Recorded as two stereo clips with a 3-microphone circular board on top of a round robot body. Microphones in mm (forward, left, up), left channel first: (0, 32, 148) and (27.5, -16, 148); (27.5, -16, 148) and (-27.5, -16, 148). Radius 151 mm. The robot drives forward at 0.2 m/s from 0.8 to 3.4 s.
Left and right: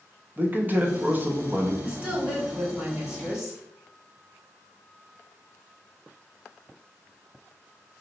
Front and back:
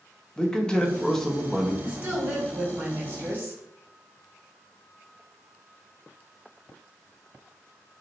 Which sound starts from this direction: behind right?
A woman speaking, at 1.8 s.